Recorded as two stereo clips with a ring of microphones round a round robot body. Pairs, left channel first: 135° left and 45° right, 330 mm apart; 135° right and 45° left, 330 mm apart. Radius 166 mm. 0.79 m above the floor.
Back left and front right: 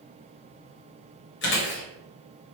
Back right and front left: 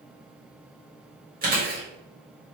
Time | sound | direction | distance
1.4 | chewing | 100° left | 1.1 m